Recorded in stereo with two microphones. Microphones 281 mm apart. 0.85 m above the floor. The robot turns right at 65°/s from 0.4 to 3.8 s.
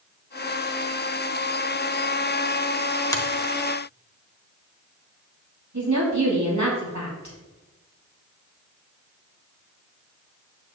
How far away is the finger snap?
About 1.4 m.